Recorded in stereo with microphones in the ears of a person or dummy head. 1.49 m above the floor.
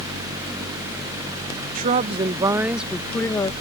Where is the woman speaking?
40° right (ahead or behind); by 3.5 s 25° left (ahead or behind).